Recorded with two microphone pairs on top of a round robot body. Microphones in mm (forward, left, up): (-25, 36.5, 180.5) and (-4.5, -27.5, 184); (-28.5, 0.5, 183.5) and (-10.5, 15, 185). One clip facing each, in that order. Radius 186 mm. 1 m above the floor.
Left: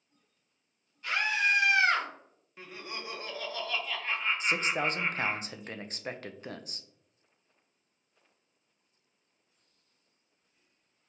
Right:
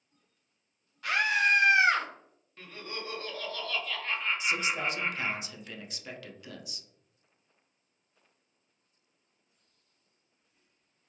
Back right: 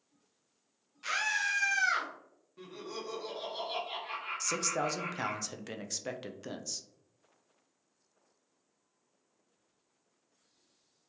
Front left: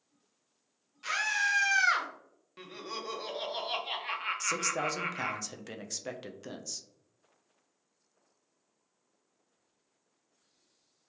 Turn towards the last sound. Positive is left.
turn(degrees=140)